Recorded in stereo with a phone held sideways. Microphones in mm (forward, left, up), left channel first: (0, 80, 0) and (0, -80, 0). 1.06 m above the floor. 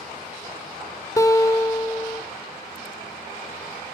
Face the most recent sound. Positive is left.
turn(degrees=20)  # may be behind; listen again after turning